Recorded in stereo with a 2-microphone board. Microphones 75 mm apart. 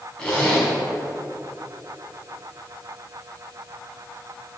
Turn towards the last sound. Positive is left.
turn(degrees=10)  # may be behind; listen again after turning